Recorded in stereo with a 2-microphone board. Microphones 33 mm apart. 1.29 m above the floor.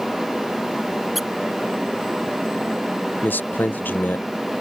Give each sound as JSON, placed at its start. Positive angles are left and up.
{"t": 1.1, "sound": "a squeak", "side_deg": -5}
{"t": 3.2, "sound": "a man speaking", "side_deg": 75}